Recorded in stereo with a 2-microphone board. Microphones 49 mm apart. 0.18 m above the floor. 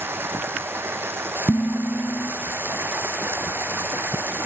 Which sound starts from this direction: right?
Running water, at 0.0 s.